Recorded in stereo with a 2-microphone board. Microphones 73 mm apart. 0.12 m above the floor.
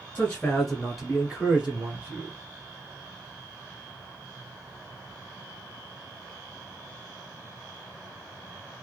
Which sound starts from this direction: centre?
A man speaking, at 0.1 s.